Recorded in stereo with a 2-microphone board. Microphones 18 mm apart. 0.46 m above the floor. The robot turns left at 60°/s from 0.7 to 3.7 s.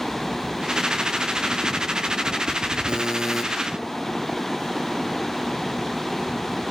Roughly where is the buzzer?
Behind right.